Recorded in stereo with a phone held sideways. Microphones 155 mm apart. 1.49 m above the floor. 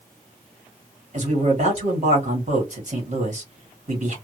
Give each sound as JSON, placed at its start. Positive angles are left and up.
{"t": 1.1, "sound": "a man speaking", "side_deg": -50, "distance_m": 1.9}